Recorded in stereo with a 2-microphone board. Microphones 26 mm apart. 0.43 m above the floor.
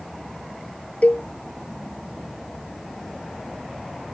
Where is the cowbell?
75° left (ahead or behind).